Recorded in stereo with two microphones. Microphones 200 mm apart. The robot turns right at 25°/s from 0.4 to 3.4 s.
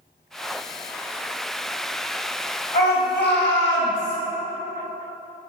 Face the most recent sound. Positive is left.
turn(degrees=65)  # may be behind; listen again after turning